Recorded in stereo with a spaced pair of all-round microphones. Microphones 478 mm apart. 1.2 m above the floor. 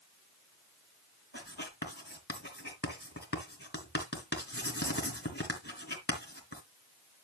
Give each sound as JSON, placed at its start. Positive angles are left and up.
{"t": 1.3, "sound": "writing", "side_deg": 20, "distance_m": 3.0}